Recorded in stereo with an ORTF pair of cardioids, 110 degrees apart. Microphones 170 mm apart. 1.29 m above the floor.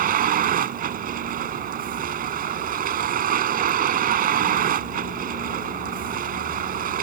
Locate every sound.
0.0 s a vehicle: 55° right